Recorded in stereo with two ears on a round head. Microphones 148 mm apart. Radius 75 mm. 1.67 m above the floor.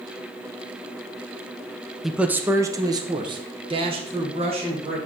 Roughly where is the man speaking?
Centre.